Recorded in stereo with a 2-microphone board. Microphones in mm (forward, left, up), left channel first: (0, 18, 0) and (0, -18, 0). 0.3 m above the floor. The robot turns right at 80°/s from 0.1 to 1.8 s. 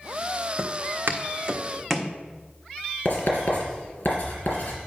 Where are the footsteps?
45° right (ahead or behind), 1.1 m; by 2.1 s 10° left (ahead or behind), 1.1 m.